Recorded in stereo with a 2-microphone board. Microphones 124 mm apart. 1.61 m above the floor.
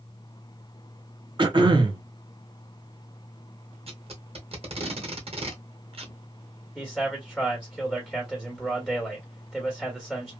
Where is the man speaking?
Centre (ahead or behind), 1.4 m.